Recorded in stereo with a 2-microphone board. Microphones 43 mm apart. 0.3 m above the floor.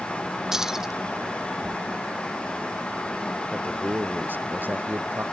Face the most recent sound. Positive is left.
turn(degrees=-50)  # may be behind; listen again after turning